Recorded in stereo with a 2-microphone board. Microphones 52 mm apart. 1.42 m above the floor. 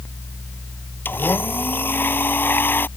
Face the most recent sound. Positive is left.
turn(degrees=40)  # may be behind; listen again after turning